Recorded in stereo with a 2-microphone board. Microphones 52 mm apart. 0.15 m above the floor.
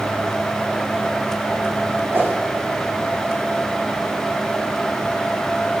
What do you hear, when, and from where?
2.1 s a whoosh: 45° right (ahead or behind), 10 m